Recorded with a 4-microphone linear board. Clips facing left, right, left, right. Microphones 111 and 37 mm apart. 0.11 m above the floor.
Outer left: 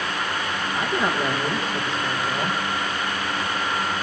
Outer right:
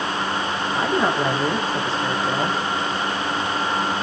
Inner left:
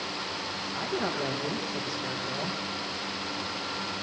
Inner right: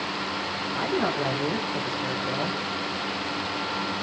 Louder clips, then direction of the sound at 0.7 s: Outer right 3 dB, inner right 5 dB; 35° right (ahead or behind).